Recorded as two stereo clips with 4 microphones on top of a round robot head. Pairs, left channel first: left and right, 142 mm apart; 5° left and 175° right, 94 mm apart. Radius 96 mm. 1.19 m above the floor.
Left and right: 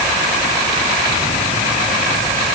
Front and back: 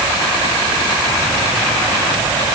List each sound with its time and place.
Only background noise.